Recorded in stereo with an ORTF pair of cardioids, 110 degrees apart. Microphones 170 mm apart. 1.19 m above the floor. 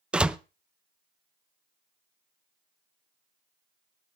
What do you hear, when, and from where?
0.1 s a door slam: 5° right, 0.5 m